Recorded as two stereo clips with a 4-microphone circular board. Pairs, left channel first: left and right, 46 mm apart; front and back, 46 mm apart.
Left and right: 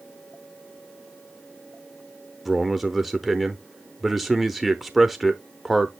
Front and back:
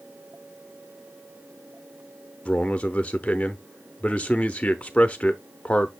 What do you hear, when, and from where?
2.5 s a man speaking: 10° right, 0.7 m